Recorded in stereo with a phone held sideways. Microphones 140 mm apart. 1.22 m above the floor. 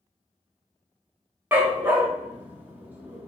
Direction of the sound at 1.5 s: 15° right (ahead or behind).